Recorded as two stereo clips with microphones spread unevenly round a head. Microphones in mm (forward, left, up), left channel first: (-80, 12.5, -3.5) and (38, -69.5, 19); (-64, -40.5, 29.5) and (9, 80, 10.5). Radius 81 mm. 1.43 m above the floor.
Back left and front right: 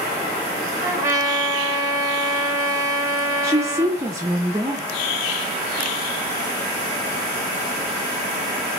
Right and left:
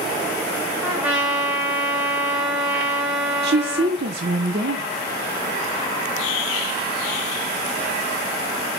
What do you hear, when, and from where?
0.8 s a trumpet: 35° right, 0.9 m
3.4 s a woman speaking: 30° left, 0.5 m